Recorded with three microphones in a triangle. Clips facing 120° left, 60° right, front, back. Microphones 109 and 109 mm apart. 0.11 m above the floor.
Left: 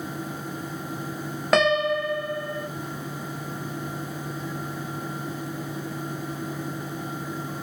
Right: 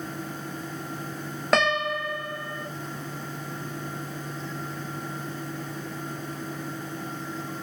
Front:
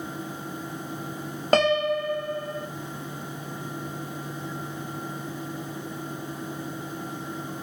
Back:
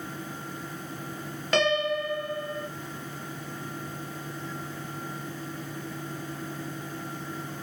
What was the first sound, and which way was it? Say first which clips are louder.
A piano: left 4 dB, front 4 dB; 35° left.